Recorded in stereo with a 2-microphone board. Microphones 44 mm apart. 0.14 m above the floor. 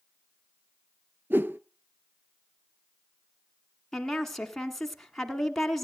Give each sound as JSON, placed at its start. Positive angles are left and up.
{"t": 1.3, "sound": "a whoosh", "side_deg": -45, "distance_m": 0.5}
{"t": 3.9, "sound": "a woman speaking", "side_deg": 5, "distance_m": 1.2}